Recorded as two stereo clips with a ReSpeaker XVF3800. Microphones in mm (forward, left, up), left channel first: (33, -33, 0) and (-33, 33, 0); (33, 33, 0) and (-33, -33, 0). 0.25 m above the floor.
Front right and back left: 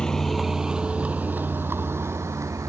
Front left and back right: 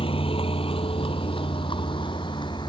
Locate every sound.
0.0 s a vehicle: 35° left; by 2.7 s 80° left